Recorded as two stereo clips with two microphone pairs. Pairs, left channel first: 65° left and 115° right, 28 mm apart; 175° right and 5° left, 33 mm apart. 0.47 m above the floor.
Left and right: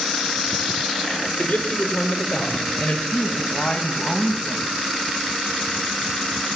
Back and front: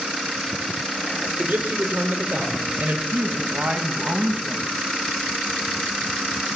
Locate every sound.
1.4 s a man speaking: 10° left, 8.5 m; by 3.0 s 20° left, 9 m
3.1 s a woman speaking: 10° right, 4 m